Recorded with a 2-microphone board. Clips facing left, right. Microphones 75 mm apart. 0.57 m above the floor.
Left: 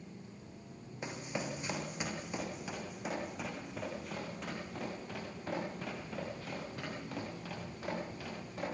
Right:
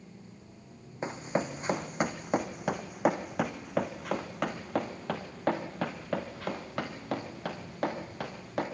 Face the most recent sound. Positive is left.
turn(degrees=-70)  # may be behind; listen again after turning